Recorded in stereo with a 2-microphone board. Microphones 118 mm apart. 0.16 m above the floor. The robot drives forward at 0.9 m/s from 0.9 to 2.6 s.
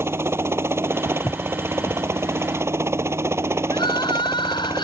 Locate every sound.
0.0 s a helicopter: 20° right (ahead or behind)
1.1 s footsteps: 30° left (ahead or behind); by 2.0 s 40° left (ahead or behind)
3.7 s crying: 45° left (ahead or behind)